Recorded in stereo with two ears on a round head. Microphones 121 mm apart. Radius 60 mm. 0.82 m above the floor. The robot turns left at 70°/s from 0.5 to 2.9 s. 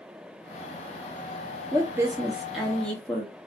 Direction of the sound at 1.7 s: 20° right (ahead or behind).